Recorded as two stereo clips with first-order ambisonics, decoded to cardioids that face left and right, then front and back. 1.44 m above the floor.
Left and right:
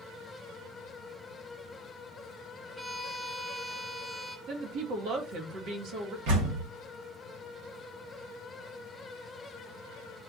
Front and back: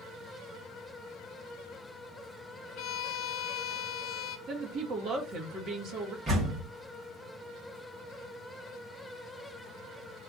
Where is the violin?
5° right, 0.6 m.